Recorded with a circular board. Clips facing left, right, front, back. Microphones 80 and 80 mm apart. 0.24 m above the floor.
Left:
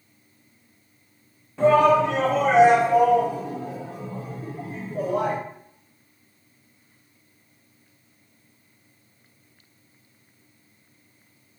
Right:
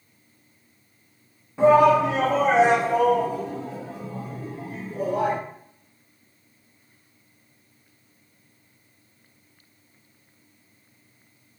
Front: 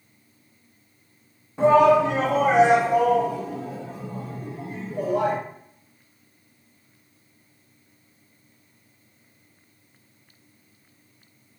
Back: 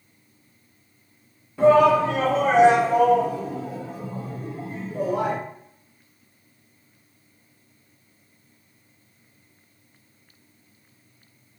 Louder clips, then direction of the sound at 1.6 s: Right 1 dB, even; 30° right.